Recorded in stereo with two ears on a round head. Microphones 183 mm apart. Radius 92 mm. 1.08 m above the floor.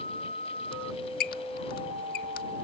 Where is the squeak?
45° left (ahead or behind).